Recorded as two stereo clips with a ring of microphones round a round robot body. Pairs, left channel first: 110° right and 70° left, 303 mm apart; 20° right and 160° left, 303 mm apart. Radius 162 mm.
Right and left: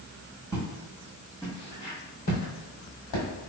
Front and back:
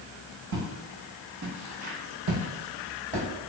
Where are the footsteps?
135° left, 1.3 m; by 3.3 s 135° right, 1.0 m.